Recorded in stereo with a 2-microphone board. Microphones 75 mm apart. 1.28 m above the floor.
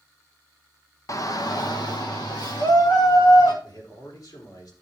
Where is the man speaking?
65° left (ahead or behind), 3 m.